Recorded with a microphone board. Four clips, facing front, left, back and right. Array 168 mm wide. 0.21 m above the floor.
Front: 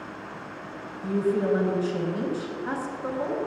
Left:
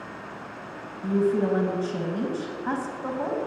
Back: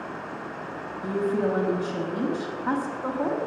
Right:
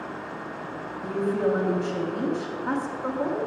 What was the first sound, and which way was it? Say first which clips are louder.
A woman speaking: left 2 dB, front 1 dB; 145° left.